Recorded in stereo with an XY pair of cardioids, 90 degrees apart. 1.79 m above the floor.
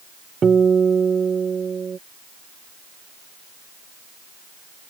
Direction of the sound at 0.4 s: 45° right.